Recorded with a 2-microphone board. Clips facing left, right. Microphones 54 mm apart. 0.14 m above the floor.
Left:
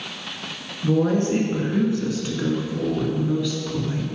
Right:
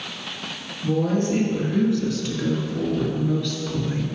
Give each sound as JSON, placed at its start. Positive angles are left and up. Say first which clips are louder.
{"t": 0.8, "sound": "a woman speaking", "louder": "left 2 dB", "side_deg": 40, "distance_m": 2.0}